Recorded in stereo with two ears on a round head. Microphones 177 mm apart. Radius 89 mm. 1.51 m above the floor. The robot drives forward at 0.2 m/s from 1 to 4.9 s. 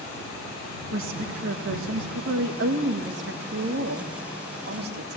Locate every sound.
0.9 s a woman speaking: 75° right (ahead or behind), 1.9 m; by 5.2 s 55° right (ahead or behind), 2.5 m